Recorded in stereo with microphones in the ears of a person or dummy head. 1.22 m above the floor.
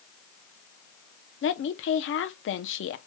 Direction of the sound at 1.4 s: 60° left (ahead or behind).